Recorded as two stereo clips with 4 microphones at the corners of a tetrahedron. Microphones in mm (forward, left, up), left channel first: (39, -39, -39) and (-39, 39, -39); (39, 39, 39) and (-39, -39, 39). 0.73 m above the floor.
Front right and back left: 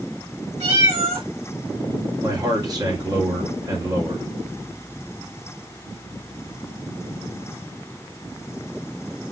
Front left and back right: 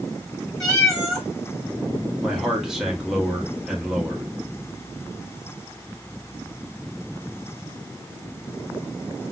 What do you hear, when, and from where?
0.6 s a cat meowing: 130° left, 2 m
2.2 s a man speaking: 140° left, 1.2 m